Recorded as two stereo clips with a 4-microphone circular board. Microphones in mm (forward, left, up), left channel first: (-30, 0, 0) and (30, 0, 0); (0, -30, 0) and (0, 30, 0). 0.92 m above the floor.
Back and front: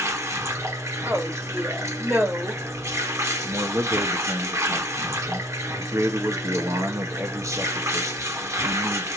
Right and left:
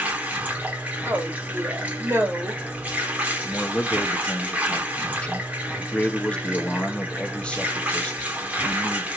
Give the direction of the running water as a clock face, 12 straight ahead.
11 o'clock.